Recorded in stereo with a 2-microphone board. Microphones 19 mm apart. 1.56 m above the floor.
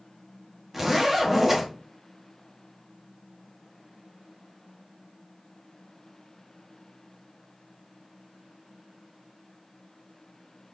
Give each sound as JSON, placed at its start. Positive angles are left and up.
{"t": 0.7, "sound": "a zipper", "side_deg": -10, "distance_m": 0.7}